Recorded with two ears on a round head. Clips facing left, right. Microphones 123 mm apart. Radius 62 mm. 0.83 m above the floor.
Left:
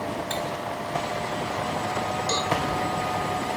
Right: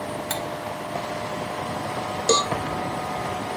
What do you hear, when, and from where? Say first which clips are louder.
0.3 s cutlery clinking: even; 65° right (ahead or behind), 2 m
2.3 s a cowbell: right 7 dB; 60° right (ahead or behind), 0.5 m